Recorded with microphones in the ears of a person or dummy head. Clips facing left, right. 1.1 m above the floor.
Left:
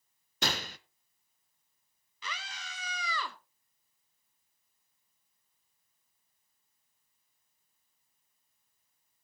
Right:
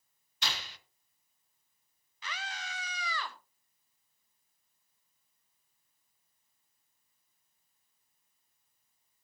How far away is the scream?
About 2 m.